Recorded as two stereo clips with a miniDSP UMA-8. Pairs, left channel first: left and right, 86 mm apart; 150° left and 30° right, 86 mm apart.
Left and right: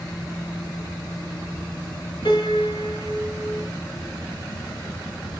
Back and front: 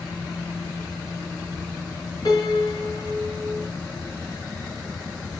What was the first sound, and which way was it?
A piano, 115° left.